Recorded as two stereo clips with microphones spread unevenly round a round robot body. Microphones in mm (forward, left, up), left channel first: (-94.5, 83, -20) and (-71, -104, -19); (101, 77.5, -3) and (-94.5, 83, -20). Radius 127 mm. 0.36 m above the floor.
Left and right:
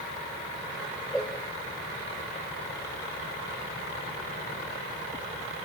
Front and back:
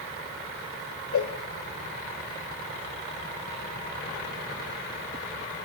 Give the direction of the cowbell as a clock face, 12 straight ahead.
12 o'clock.